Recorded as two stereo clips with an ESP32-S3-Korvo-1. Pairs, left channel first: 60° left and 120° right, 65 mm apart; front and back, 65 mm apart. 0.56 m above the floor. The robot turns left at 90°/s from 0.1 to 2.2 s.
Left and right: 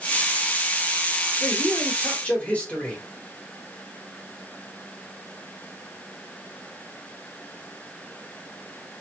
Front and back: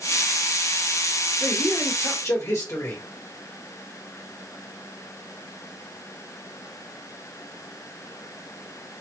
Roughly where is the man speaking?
Left.